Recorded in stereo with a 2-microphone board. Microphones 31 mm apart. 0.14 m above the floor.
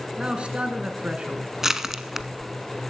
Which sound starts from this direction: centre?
Crushing, at 1.6 s.